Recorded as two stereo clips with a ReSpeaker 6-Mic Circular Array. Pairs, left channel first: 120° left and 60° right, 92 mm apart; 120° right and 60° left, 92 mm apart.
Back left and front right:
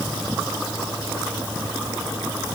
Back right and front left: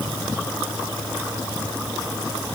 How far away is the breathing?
No breathing in this recording.